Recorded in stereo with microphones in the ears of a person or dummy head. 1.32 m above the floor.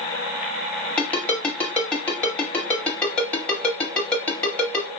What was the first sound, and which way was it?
A ringtone, 10° left (ahead or behind).